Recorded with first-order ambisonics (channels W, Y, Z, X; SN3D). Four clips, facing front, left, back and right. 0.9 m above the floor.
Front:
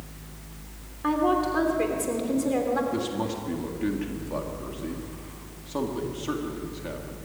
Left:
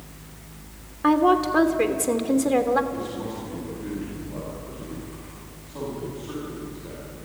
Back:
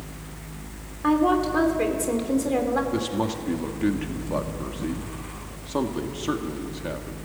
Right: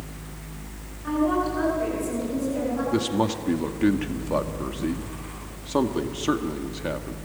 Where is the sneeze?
No sneeze in this recording.